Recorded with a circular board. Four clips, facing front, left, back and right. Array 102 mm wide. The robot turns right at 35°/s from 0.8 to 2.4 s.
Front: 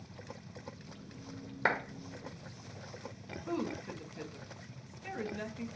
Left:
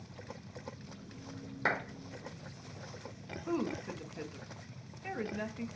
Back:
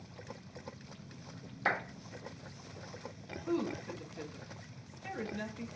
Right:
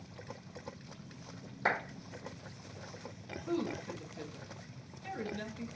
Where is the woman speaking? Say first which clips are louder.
Left 1 dB, back 2 dB; 85° left, 0.6 m.